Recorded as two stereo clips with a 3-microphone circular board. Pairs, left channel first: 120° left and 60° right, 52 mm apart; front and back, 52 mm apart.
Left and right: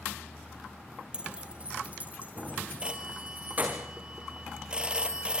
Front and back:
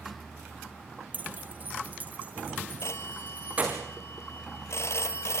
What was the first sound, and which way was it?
Keys jangling, 125° right.